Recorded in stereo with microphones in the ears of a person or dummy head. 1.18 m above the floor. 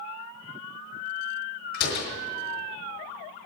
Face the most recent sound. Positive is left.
turn(degrees=65)  # may be behind; listen again after turning